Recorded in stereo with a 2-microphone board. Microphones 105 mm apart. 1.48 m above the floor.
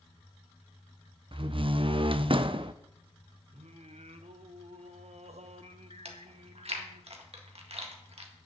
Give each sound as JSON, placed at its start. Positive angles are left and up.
{"t": 1.3, "sound": "a door slam", "side_deg": -50, "distance_m": 0.5}
{"t": 3.5, "sound": "singing", "side_deg": -75, "distance_m": 0.7}
{"t": 6.0, "sound": "chewing", "side_deg": -65, "distance_m": 1.6}